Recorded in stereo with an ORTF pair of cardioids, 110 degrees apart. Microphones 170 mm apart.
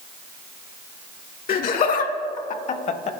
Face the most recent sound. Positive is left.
turn(degrees=45)